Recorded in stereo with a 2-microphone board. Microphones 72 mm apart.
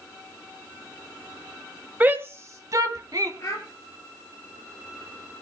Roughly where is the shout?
Right.